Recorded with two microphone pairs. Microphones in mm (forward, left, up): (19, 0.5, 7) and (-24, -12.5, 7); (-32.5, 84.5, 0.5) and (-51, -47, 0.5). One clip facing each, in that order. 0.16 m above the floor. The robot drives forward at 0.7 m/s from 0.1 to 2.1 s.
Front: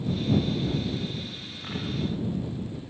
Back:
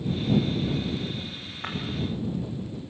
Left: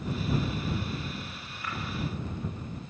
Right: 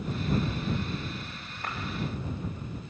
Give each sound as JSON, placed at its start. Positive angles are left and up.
{"t": 1.6, "sound": "breaking glass", "azimuth_deg": -140, "distance_m": 5.0}